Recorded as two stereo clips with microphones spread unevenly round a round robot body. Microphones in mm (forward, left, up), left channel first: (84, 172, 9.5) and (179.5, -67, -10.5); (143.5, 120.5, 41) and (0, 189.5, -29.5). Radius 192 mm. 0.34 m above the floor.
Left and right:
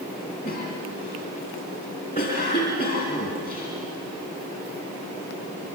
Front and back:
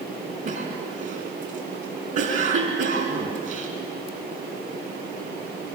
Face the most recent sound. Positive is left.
turn(degrees=180)